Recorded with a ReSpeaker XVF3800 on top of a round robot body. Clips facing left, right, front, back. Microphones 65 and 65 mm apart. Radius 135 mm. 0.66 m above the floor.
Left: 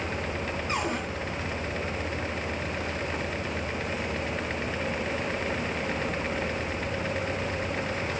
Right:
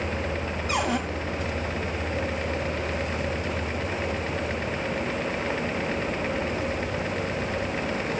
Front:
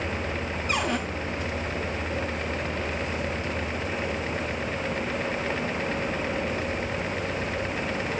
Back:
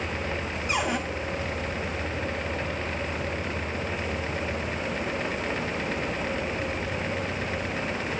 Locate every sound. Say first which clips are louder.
0.7 s a cupboard door: right 5 dB, even; 100° right, 3.5 m